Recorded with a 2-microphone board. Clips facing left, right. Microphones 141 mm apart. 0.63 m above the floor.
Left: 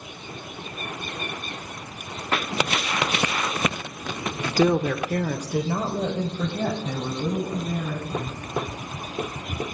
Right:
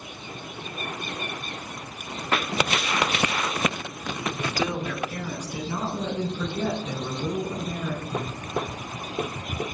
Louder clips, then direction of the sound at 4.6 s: Left 11 dB; 50° left (ahead or behind).